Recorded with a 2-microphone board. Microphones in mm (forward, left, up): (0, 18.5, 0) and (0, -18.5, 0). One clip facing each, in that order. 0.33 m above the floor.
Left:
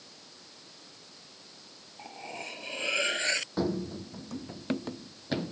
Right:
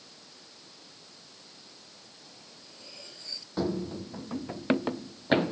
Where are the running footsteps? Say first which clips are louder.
Even; centre (ahead or behind); by 5.5 s 45° right (ahead or behind).